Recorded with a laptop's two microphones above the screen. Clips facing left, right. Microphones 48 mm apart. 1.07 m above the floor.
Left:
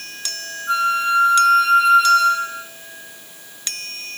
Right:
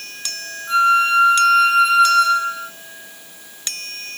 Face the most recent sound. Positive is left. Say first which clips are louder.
# right 4 dB
turn(degrees=20)  # may be behind; listen again after turning